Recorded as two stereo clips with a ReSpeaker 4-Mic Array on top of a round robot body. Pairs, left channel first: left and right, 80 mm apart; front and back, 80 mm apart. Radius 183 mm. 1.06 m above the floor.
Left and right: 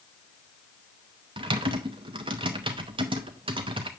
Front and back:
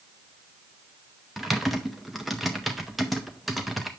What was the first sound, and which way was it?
Typing on a keyboard, 90° right.